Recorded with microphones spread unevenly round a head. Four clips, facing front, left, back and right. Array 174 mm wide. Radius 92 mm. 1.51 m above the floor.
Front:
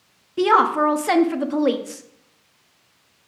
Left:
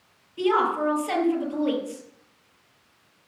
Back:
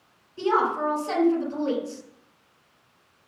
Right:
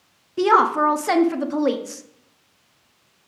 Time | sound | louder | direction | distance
0.4 | a woman speaking | right 6 dB, front 7 dB | 40° right | 1.1 m